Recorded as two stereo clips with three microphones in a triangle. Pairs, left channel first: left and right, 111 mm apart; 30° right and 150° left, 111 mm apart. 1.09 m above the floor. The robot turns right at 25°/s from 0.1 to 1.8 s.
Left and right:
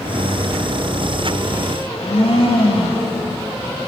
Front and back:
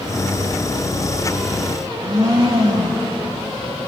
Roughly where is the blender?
Left.